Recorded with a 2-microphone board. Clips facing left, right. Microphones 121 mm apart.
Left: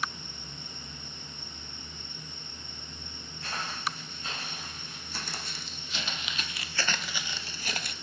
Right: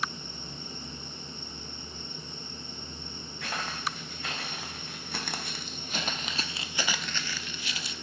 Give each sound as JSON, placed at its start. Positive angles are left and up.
{"t": 3.4, "sound": "footsteps", "side_deg": -65, "distance_m": 2.5}